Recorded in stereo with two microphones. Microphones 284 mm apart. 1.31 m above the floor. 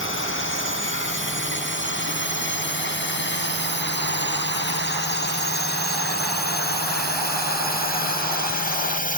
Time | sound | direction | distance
0.0 | a drone | 45° left (ahead or behind) | ?